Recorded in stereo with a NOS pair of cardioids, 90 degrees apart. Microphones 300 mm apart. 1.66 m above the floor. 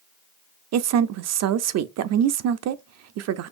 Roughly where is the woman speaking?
Ahead right.